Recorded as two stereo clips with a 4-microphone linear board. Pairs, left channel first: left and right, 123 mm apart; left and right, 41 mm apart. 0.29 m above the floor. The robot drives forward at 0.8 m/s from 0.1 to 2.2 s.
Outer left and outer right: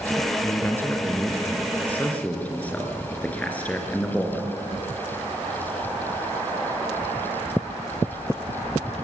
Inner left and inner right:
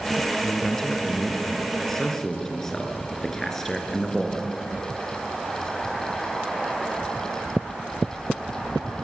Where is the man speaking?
20° left (ahead or behind), 2.5 m; by 4.5 s 10° left (ahead or behind), 3.5 m.